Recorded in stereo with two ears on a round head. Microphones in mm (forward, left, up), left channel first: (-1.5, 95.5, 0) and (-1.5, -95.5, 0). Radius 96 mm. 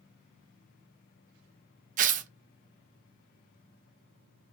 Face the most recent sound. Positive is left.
turn(degrees=-40)  # may be behind; listen again after turning